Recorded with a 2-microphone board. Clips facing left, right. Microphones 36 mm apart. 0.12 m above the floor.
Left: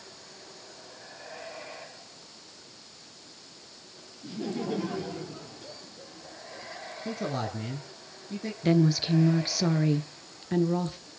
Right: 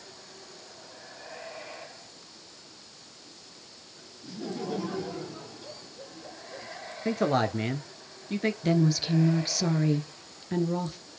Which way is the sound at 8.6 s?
10° left (ahead or behind).